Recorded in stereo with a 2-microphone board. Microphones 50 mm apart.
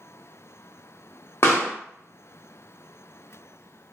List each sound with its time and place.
1.4 s a pop: 55° left (ahead or behind), 0.8 m